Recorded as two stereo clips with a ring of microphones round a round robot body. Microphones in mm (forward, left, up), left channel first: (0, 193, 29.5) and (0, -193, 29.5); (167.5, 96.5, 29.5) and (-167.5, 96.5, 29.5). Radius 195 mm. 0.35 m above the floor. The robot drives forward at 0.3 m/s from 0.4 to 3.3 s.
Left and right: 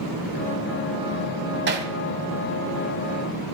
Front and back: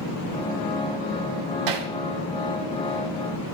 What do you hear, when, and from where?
1.7 s hammering: 150° right, 1.9 m; by 1.9 s 155° right, 1.9 m